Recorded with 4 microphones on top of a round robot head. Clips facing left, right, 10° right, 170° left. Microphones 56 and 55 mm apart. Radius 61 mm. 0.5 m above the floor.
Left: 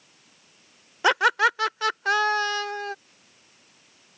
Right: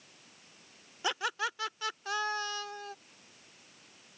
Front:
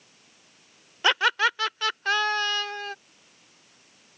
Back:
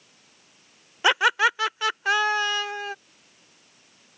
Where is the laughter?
95° left.